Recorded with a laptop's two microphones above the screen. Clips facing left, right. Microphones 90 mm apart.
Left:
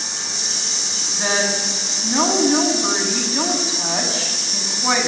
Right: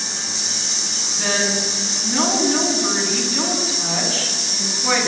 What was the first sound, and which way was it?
A woman speaking, 25° left (ahead or behind).